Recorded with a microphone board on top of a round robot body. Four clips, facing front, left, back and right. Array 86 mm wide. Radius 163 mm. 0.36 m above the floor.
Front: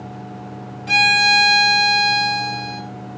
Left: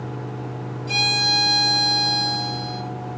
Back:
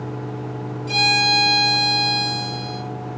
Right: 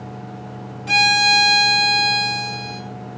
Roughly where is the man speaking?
I don't hear a man speaking.